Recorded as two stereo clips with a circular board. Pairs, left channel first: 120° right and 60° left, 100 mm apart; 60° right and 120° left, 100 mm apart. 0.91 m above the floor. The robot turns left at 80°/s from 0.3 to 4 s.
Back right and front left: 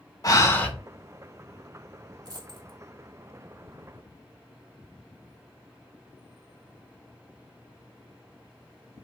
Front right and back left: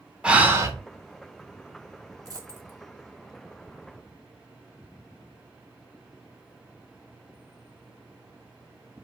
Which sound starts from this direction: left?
A dropped coin, at 2.2 s.